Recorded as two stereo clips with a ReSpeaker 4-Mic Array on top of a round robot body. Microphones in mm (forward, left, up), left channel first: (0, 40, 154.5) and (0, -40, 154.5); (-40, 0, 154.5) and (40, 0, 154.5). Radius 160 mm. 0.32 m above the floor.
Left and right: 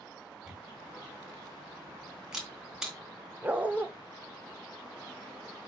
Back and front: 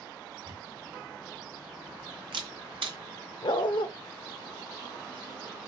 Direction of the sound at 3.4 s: 160° right.